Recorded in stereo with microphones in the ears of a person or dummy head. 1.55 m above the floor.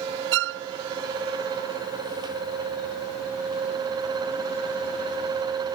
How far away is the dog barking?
No dog barking in this recording.